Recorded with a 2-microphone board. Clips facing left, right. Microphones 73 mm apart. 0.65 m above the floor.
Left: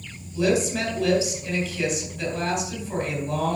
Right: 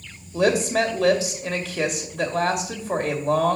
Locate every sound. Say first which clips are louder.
0.3 s a woman speaking: right 3 dB; 75° right (ahead or behind), 2 m